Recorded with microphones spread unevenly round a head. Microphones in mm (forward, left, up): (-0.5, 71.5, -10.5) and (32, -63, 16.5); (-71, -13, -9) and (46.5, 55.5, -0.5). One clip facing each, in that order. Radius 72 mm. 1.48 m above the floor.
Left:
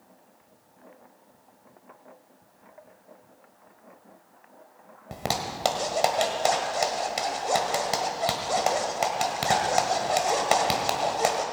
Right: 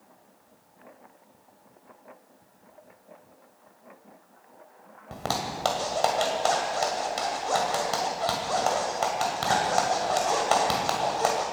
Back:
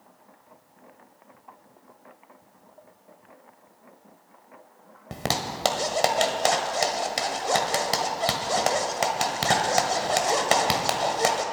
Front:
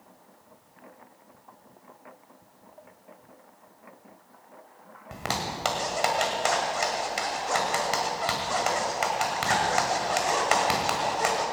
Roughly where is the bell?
I don't hear a bell.